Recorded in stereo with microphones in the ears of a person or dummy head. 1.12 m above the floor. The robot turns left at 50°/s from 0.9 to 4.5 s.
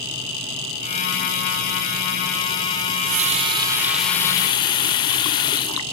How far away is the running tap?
About 0.5 m.